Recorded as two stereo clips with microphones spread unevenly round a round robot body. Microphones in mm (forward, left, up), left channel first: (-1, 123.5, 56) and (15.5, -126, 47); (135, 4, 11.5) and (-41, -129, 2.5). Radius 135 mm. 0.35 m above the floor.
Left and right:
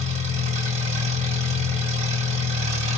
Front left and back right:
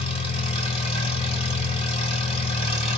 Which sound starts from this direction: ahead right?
An engine running, at 0.0 s.